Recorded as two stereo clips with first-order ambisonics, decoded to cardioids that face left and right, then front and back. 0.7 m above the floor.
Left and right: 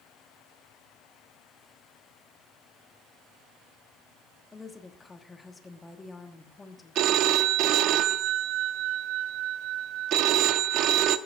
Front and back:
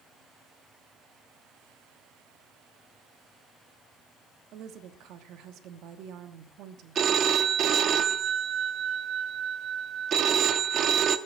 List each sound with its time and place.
4.5 s a woman speaking: 165° left, 1.1 m
7.0 s a phone ringing: 125° right, 0.6 m